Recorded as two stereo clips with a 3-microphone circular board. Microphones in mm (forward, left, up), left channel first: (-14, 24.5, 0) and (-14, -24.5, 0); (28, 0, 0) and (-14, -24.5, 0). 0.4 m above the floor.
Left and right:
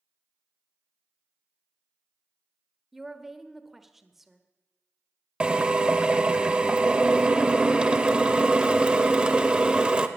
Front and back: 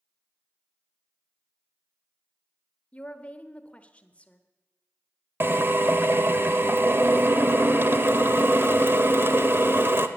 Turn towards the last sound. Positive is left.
turn(degrees=-155)